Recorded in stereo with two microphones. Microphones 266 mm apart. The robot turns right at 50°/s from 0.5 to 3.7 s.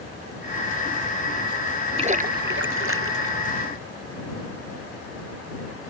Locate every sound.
2.0 s a splash: 155° right; by 3.5 s 80° right